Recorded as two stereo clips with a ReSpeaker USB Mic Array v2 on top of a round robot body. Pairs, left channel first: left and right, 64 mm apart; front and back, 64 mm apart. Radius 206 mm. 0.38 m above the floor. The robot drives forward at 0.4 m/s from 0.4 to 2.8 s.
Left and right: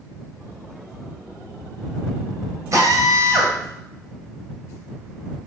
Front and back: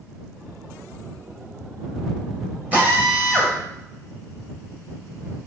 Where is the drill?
120° right, 1.7 m.